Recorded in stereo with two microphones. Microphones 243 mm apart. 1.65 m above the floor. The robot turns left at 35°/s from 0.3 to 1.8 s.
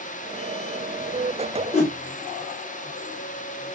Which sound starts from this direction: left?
A whoosh, at 1.7 s.